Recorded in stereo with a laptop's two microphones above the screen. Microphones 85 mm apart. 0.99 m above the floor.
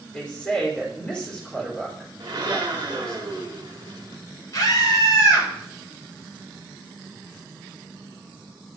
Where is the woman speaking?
10° left (ahead or behind), 3.5 m.